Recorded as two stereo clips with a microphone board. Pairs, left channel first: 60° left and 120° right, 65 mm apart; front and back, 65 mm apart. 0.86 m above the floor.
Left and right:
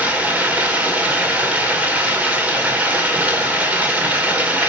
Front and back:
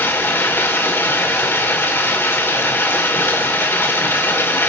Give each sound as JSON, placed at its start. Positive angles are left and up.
{"t": 0.0, "sound": "running water", "azimuth_deg": -55, "distance_m": 2.0}